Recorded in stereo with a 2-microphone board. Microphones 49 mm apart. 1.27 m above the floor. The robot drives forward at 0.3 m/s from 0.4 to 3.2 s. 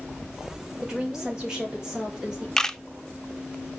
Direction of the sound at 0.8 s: 10° right (ahead or behind).